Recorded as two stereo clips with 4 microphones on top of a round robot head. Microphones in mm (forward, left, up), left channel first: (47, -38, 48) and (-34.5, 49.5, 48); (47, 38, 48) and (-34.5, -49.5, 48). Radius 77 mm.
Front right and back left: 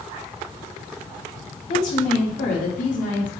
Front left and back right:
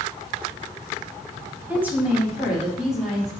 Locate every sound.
1.7 s a woman speaking: 60° right, 2.5 m; by 3.3 s 40° right, 3 m